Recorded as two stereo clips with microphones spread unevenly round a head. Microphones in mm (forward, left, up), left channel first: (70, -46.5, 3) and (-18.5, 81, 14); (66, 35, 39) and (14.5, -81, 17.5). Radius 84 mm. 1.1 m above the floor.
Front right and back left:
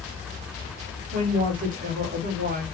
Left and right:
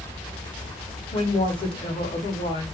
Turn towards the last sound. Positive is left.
turn(degrees=110)